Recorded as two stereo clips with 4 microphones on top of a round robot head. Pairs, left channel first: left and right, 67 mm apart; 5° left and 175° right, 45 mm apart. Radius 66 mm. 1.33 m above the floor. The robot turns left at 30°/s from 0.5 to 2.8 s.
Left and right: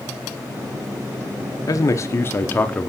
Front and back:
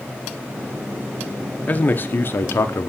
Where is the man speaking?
55° left, 0.8 m; by 2.9 s 20° left, 0.8 m.